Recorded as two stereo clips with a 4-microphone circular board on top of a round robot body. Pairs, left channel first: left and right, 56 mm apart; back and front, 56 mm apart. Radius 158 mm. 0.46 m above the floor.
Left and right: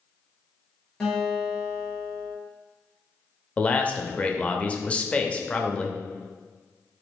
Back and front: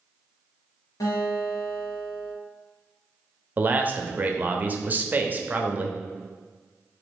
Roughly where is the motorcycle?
No motorcycle in this recording.